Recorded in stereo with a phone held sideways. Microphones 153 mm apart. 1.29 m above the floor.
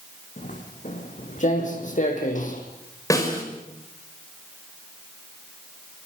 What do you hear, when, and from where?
0.4 s footsteps: 55° left (ahead or behind), 5.5 m; by 2.6 s 60° left (ahead or behind), 4 m
3.1 s a snare drum: 20° left (ahead or behind), 5.5 m